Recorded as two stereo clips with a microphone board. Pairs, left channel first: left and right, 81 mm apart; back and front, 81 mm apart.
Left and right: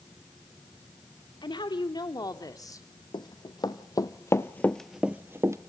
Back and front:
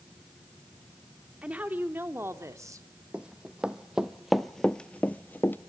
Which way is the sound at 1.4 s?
75° left.